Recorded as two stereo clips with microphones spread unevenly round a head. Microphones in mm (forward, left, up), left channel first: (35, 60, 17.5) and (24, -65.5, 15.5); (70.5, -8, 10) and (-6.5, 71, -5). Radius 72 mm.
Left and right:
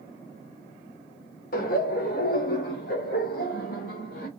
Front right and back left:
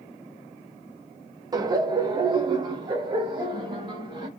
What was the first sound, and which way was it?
Laughter, 80° left.